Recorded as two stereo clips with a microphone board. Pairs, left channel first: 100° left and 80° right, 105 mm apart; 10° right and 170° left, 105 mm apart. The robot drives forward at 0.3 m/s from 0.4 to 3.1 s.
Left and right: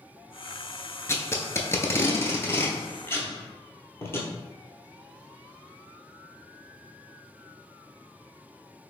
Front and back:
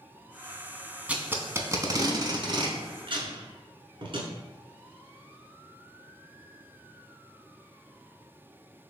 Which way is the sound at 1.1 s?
110° left.